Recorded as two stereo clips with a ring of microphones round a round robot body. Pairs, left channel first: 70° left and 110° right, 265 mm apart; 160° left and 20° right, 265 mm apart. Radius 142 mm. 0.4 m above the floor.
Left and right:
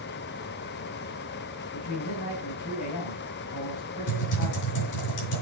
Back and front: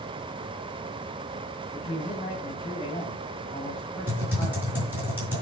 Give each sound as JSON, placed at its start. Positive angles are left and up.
{"t": 1.7, "sound": "a man speaking", "azimuth_deg": 85, "distance_m": 4.0}
{"t": 4.1, "sound": "typing on a keyboard", "azimuth_deg": 60, "distance_m": 5.5}